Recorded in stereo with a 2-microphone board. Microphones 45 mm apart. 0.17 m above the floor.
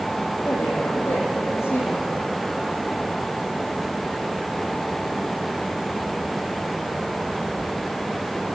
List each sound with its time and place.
0.5 s a woman speaking: 70° left (ahead or behind), 9 m